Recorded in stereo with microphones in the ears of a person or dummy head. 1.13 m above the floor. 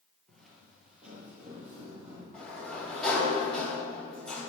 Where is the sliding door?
5° left (ahead or behind), 3 m.